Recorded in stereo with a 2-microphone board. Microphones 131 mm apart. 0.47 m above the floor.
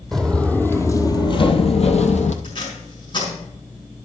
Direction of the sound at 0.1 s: 5° left (ahead or behind).